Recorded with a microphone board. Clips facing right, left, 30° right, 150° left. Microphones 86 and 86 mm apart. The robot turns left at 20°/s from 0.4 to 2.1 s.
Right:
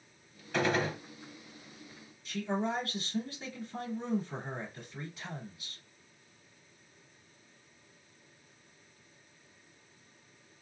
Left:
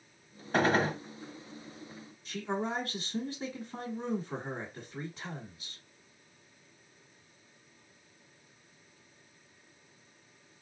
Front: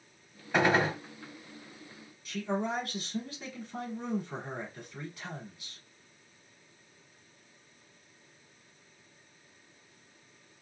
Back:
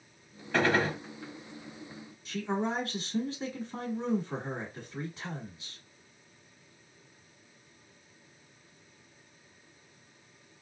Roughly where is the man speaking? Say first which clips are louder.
Right 1 dB, back 1 dB; behind left.